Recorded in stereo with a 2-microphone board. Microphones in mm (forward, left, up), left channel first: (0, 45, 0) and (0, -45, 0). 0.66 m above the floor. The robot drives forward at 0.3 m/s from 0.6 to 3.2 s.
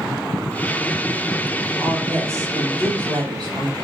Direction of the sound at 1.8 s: 10° left (ahead or behind).